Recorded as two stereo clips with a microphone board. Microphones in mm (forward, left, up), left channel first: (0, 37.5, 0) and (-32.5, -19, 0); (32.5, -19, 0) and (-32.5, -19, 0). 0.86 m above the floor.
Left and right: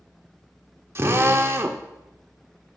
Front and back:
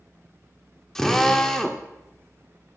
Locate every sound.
0.9 s a drill: 80° right, 0.6 m